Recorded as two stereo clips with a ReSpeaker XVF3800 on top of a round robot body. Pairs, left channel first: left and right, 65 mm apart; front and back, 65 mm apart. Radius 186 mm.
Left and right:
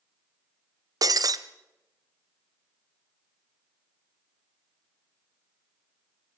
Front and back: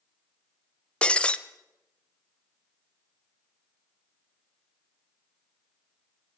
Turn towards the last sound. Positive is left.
turn(degrees=-75)